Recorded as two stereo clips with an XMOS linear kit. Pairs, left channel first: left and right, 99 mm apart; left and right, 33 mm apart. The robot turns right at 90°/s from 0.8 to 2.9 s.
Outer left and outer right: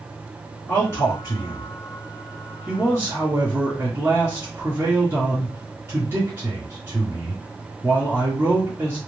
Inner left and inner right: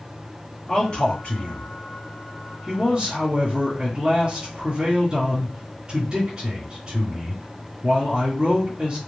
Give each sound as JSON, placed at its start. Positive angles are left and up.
{"t": 0.7, "sound": "a man speaking", "azimuth_deg": 40, "distance_m": 2.5}